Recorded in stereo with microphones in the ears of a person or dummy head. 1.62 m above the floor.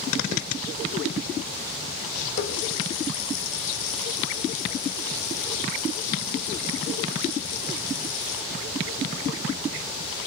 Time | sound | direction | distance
2.4 | a running tap | 60° left (ahead or behind) | 1.5 m